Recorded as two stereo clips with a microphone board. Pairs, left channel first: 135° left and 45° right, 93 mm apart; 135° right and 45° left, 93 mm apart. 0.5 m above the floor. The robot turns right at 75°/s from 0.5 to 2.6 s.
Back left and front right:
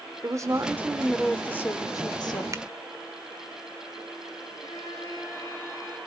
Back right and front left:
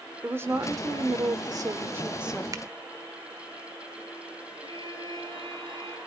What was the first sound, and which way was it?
A woman speaking, 10° right.